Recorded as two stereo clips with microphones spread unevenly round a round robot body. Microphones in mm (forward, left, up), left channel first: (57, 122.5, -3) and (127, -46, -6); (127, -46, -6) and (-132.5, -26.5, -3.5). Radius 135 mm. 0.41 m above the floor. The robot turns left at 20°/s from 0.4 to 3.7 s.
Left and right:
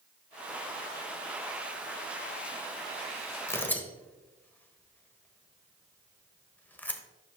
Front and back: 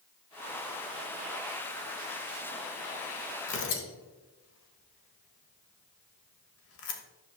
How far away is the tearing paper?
About 1.1 m.